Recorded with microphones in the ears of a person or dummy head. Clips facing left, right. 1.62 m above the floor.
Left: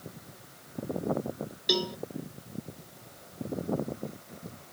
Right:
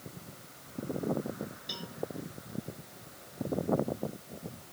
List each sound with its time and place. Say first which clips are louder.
1.7 s a cowbell: left 15 dB; 65° left (ahead or behind)